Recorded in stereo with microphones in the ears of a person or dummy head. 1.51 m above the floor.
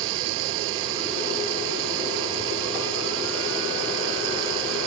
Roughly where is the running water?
Right.